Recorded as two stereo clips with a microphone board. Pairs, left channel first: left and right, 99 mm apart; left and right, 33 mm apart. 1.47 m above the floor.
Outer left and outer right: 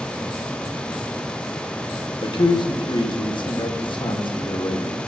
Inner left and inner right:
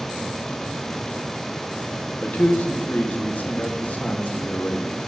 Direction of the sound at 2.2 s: 55° left (ahead or behind).